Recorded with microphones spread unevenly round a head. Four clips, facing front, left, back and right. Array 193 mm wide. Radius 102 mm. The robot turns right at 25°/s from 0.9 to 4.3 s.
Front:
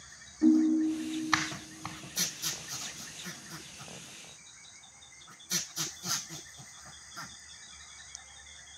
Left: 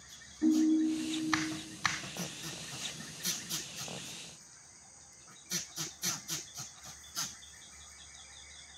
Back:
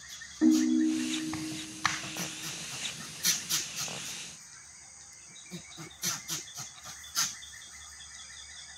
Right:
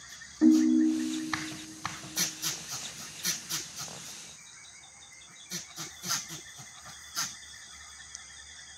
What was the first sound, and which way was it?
A ringtone, 115° right.